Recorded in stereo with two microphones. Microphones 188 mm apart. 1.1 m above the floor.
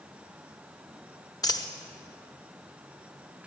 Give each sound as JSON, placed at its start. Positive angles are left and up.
{"t": 1.4, "sound": "a dropped coin", "side_deg": 20, "distance_m": 0.7}